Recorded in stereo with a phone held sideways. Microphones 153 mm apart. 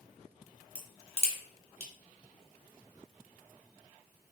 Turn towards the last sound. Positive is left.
turn(degrees=-45)  # may be behind; listen again after turning